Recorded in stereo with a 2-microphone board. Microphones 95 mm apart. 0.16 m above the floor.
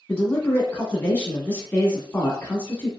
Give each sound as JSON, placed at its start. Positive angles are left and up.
{"t": 0.1, "sound": "a man speaking", "side_deg": 15, "distance_m": 1.0}